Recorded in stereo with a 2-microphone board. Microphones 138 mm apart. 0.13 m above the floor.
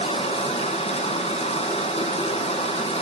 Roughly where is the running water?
Left.